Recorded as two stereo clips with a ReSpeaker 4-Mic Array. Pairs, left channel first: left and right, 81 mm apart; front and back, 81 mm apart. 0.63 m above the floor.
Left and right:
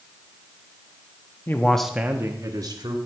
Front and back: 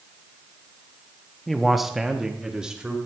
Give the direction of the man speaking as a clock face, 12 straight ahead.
9 o'clock.